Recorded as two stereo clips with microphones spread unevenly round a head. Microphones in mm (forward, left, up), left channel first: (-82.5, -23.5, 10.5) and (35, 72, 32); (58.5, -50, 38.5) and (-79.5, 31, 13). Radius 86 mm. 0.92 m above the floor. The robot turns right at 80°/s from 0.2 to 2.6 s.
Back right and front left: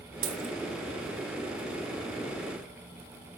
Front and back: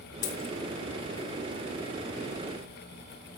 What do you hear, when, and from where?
0.2 s a dropped coin: 20° left, 2.5 m; by 0.5 s 45° left, 2.5 m